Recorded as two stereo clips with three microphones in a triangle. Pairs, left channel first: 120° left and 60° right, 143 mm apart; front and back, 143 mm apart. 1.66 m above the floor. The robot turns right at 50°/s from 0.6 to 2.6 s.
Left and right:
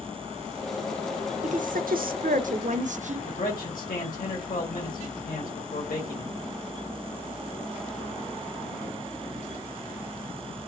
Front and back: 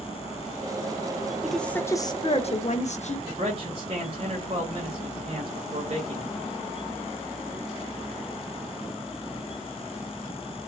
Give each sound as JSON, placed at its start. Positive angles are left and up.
{"t": 1.4, "sound": "a woman speaking", "azimuth_deg": -95, "distance_m": 0.6}
{"t": 3.3, "sound": "a man speaking", "azimuth_deg": 130, "distance_m": 1.3}